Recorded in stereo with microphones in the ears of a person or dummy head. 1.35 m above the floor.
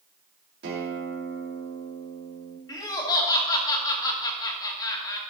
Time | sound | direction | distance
0.6 | a guitar | 60° right (ahead or behind) | 3 m
2.7 | laughter | 20° left (ahead or behind) | 1.9 m